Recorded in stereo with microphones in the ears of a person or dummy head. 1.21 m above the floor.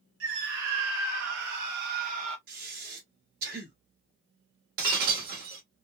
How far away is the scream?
About 2.5 m.